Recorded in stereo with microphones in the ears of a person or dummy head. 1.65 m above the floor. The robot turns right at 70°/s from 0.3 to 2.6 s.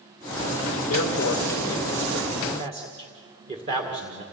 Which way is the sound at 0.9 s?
90° left.